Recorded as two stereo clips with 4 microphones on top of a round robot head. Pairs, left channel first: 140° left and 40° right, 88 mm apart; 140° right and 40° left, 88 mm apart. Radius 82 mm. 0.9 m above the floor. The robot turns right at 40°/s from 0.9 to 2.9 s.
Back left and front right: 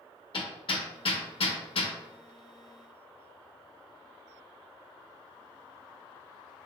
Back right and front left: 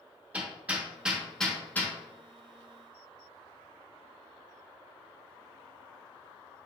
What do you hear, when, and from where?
0.3 s hammering: 115° left, 1.0 m; by 2.0 s 155° left, 1.0 m